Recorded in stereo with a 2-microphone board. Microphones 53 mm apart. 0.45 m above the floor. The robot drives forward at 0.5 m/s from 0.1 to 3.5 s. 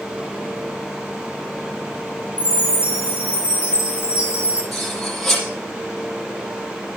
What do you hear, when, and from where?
2.4 s a chime: 30° right (ahead or behind), 4.5 m; by 4.6 s 25° right (ahead or behind), 5 m
4.7 s cutlery clinking: 5° left (ahead or behind), 6.5 m